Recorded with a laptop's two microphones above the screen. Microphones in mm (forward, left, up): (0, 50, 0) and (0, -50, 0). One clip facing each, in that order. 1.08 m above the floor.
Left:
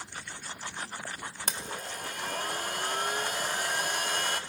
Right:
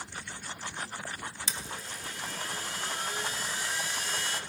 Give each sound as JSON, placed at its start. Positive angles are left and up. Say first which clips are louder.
{"t": 1.5, "sound": "a blender", "louder": "left 3 dB", "side_deg": 55, "distance_m": 0.8}